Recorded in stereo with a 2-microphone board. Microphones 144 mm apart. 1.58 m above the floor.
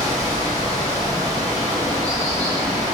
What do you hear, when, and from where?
0.0 s running water: 25° right (ahead or behind), 1.0 m